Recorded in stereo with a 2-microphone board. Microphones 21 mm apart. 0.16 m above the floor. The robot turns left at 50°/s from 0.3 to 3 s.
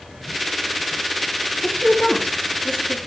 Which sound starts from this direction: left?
A woman speaking, at 1.6 s.